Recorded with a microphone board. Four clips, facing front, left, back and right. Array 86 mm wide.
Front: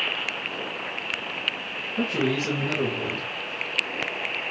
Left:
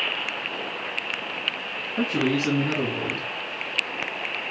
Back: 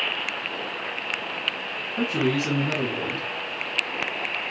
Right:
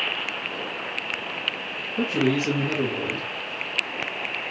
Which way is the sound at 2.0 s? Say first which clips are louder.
Right 1 dB, back 1 dB; 110° left.